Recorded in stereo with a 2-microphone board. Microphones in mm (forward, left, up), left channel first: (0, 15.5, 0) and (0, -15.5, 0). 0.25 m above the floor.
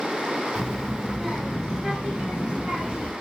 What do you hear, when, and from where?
0.6 s a child speaking: centre (ahead or behind), 1.5 m; by 3.1 s 30° right (ahead or behind), 2.5 m